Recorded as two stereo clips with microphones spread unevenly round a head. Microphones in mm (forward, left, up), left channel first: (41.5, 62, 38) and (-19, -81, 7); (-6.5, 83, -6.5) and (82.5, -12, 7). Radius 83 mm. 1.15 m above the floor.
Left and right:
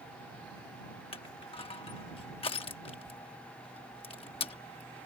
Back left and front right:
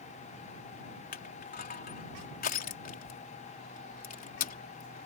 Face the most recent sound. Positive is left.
turn(degrees=125)